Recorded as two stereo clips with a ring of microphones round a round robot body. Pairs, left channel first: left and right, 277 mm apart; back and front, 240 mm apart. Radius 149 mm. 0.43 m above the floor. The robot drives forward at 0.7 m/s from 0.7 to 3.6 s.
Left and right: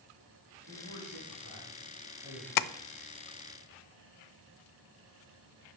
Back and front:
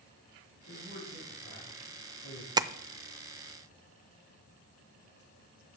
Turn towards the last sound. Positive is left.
turn(degrees=135)